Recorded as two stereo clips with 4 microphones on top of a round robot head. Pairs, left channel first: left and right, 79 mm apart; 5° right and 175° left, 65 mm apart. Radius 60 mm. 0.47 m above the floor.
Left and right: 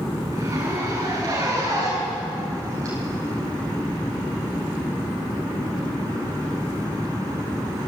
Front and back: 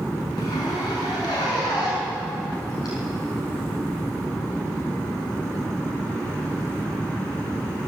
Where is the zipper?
35° right, 7 m.